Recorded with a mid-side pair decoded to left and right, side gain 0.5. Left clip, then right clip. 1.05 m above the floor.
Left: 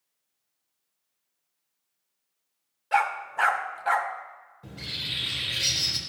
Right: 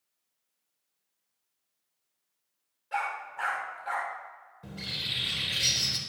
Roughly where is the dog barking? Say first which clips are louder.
Left 8 dB; ahead left.